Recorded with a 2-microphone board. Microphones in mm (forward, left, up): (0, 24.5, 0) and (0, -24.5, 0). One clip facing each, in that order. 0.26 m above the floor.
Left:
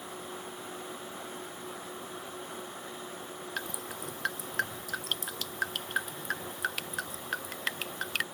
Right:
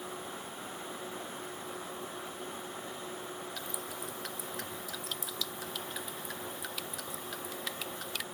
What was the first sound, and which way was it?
Dripping, 50° left (ahead or behind).